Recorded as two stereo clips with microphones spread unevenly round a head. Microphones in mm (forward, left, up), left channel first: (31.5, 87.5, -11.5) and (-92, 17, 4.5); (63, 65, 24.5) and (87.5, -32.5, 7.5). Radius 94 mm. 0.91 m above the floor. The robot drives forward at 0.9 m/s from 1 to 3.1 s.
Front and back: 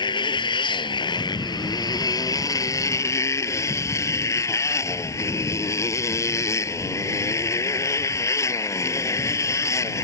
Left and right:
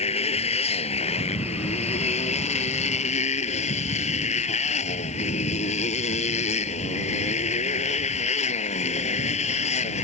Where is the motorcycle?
90° left; by 10.0 s 100° left.